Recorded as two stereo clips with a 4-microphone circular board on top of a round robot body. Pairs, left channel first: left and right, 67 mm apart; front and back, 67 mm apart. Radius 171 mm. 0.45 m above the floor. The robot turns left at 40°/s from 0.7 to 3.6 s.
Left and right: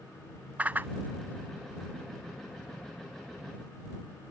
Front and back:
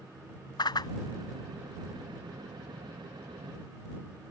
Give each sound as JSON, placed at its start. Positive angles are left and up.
{"t": 0.6, "sound": "a whoosh", "azimuth_deg": -20}